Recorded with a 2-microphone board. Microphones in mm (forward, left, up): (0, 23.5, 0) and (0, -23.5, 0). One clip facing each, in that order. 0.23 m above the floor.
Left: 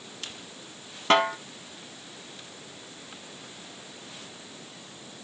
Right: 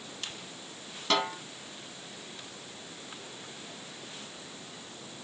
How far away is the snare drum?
About 0.9 m.